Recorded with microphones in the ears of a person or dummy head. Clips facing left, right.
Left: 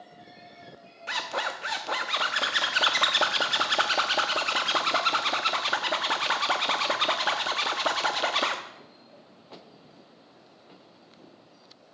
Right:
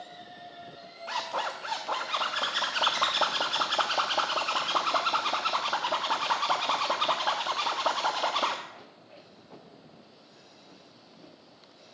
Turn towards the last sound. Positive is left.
turn(degrees=20)  # may be behind; listen again after turning